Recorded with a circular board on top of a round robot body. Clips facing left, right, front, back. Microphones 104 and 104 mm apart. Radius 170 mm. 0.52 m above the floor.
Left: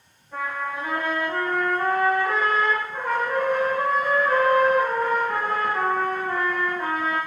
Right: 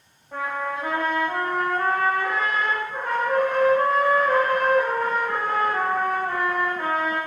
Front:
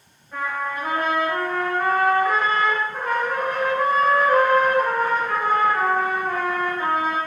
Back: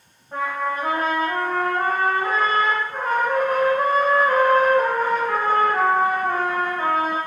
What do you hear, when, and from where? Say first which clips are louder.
0.3 s a trumpet: right 1 dB, back 2 dB; 120° right, 0.7 m